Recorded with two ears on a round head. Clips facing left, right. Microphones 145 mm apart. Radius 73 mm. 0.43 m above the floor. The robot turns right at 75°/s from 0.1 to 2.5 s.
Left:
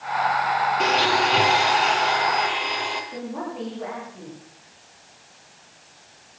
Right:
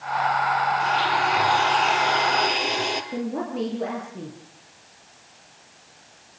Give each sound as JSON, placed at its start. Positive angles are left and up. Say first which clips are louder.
{"t": 0.8, "sound": "a blender", "louder": "left 2 dB", "azimuth_deg": 100, "distance_m": 4.5}
{"t": 3.1, "sound": "a woman speaking", "louder": "right 4 dB", "side_deg": -40, "distance_m": 8.5}